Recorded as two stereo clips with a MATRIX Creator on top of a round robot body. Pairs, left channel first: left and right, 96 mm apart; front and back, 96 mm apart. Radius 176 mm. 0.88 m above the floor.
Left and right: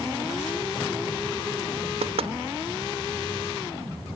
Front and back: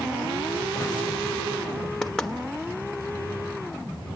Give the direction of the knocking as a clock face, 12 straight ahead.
3 o'clock.